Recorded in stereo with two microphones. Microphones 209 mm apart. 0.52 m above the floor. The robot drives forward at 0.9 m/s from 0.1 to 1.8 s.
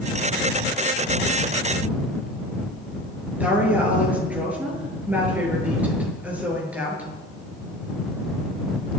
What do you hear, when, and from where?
3.4 s a woman speaking: 5° right (ahead or behind), 7 m